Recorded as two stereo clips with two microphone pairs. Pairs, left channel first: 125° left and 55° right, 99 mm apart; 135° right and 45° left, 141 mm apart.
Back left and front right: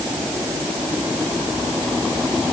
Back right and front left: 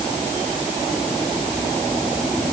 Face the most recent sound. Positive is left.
No sound to turn to.